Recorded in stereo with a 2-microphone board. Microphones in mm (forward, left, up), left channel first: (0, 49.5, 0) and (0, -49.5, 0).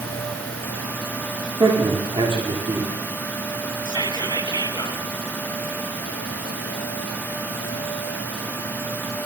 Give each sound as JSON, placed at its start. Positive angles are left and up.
{"t": 1.6, "sound": "a man speaking", "side_deg": -55, "distance_m": 9.0}
{"t": 3.9, "sound": "whispering", "side_deg": -45, "distance_m": 3.5}